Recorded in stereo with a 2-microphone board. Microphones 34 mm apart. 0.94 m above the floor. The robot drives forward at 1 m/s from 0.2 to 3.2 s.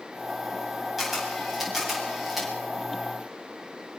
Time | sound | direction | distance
1.0 | a camera shutter | 5° right (ahead or behind) | 8 m